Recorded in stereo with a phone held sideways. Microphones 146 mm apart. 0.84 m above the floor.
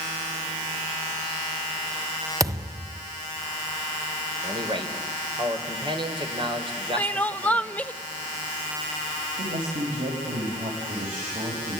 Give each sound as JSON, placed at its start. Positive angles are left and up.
{"t": 2.4, "sound": "a thud", "side_deg": -25, "distance_m": 1.3}
{"t": 4.4, "sound": "a man speaking", "side_deg": -35, "distance_m": 3.5}
{"t": 7.0, "sound": "crying", "side_deg": 10, "distance_m": 0.7}
{"t": 9.4, "sound": "a man speaking", "side_deg": -75, "distance_m": 5.0}